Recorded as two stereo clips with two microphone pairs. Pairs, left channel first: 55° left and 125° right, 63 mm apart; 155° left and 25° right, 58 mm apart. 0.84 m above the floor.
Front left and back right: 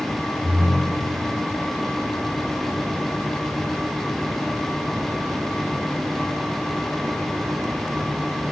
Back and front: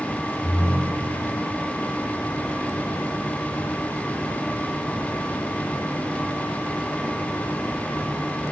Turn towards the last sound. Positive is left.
turn(degrees=165)